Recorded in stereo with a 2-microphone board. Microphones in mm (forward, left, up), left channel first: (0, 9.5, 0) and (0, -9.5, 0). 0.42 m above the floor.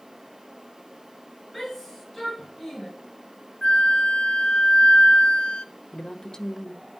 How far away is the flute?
About 1.7 m.